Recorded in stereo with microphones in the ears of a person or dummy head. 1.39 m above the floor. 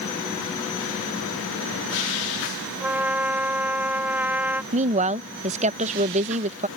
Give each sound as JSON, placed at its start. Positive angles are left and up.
{"t": 2.8, "sound": "a trumpet", "side_deg": -10}
{"t": 4.7, "sound": "a woman speaking", "side_deg": -30}